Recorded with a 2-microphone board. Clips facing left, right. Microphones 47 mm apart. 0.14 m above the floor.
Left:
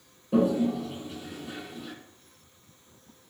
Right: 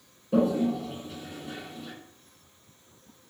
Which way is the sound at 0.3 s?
5° left (ahead or behind).